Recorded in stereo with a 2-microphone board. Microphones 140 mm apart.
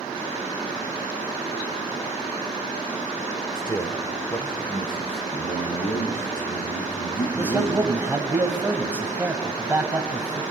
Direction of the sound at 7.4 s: 15° right (ahead or behind).